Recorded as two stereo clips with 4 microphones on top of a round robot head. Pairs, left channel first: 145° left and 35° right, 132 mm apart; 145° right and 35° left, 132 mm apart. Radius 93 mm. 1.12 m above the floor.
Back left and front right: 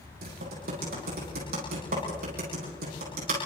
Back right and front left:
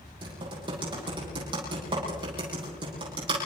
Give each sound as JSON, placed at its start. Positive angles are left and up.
{"t": 0.2, "sound": "typing on a keyboard", "azimuth_deg": -20, "distance_m": 9.5}